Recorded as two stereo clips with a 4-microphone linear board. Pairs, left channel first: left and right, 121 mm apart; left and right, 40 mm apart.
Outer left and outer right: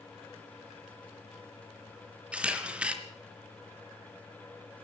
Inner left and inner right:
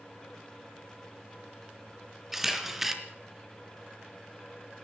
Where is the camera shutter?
10° right (ahead or behind), 3 m.